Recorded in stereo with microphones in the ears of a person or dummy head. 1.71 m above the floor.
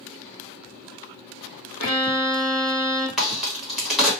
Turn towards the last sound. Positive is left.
turn(degrees=-5)  # may be behind; listen again after turning